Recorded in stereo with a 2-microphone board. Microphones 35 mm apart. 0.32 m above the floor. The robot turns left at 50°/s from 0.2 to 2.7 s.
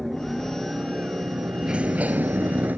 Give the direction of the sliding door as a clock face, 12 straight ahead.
1 o'clock.